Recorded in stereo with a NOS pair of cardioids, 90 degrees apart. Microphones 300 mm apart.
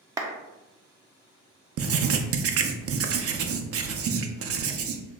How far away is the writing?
About 0.6 m.